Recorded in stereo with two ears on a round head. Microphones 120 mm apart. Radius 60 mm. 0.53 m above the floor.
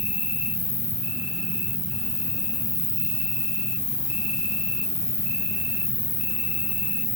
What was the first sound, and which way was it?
An insect, 20° left (ahead or behind).